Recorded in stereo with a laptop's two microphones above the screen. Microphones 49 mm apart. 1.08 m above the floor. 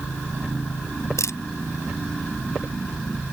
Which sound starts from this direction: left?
A camera shutter, at 1.2 s.